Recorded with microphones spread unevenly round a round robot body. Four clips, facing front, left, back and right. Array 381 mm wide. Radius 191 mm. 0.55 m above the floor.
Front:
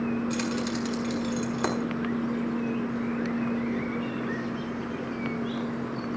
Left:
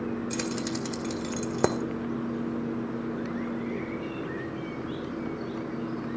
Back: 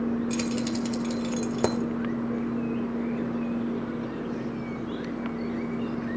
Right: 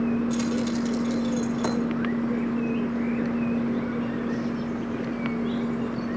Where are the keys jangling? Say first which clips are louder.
Right 6 dB, back 1 dB; 125° left, 1.5 m.